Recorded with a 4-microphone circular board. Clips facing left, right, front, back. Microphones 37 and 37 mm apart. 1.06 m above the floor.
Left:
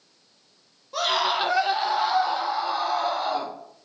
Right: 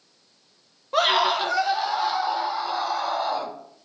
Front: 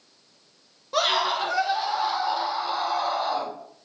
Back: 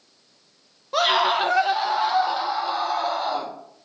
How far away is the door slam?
No door slam in this recording.